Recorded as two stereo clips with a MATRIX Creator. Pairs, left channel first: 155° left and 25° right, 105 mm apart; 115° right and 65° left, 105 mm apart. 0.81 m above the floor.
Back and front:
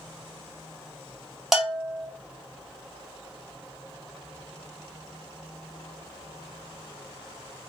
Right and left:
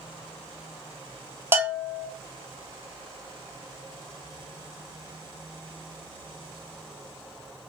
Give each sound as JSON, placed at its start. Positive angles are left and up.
{"t": 1.5, "sound": "a bell", "azimuth_deg": 60, "distance_m": 0.7}